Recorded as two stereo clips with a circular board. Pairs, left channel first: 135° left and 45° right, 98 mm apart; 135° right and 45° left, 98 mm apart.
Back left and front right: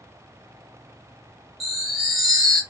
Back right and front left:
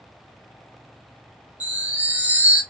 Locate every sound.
1.6 s a chime: 45° left, 0.9 m